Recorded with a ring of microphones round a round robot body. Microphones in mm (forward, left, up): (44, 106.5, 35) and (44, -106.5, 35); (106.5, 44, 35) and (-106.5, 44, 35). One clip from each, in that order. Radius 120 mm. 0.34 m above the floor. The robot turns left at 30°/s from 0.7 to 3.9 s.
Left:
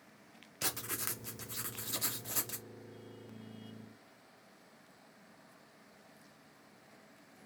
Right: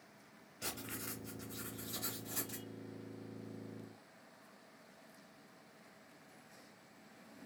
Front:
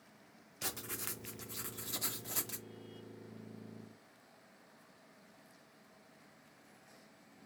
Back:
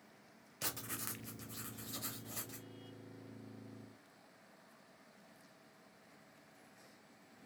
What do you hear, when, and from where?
0.6 s writing: 95° left, 0.5 m; by 2.7 s 35° left, 0.5 m